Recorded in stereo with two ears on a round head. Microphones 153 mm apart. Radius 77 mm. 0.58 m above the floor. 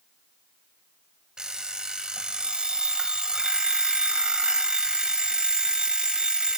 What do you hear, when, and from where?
1.4 s an alarm clock: 5° right (ahead or behind), 2 m